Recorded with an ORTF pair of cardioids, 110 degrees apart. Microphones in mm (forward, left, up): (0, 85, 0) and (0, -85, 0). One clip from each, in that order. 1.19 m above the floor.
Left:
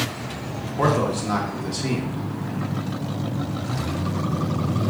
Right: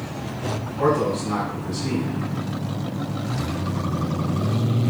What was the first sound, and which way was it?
A man speaking, 45° left.